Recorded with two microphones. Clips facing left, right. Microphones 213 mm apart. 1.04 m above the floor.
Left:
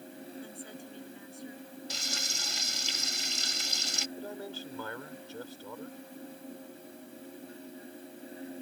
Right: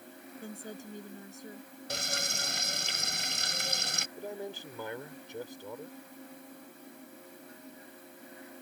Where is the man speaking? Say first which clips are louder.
Right 4 dB; 20° right (ahead or behind).